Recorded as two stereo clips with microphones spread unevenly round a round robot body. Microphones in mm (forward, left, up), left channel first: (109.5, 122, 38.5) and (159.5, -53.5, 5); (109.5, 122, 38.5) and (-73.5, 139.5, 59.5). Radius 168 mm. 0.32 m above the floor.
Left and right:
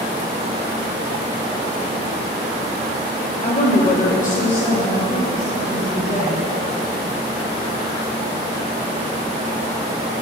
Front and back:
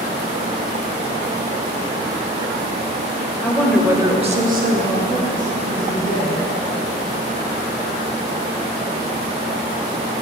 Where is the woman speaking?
65° left, 1.2 m; by 6.4 s 165° right, 2.5 m.